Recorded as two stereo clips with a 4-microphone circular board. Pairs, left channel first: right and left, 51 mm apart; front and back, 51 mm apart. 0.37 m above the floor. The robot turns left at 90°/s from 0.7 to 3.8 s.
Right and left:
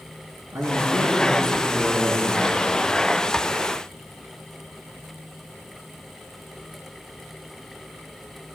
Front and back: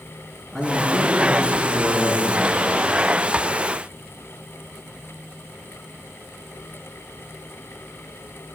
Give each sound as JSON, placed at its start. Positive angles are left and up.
{"t": 0.5, "sound": "a man speaking", "azimuth_deg": 85, "distance_m": 4.5}